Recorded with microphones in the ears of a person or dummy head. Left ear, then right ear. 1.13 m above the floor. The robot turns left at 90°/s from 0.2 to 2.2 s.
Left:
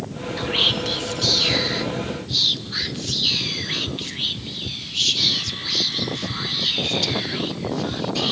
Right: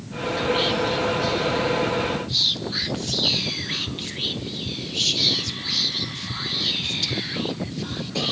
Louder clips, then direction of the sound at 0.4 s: Left 2 dB; 10° left (ahead or behind).